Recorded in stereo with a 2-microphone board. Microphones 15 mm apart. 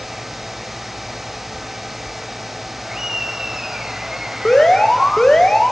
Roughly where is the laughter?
Right.